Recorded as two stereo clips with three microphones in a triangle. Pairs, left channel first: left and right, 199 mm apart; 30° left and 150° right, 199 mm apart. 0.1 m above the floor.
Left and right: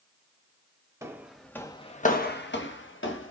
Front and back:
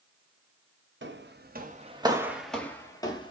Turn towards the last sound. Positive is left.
turn(degrees=95)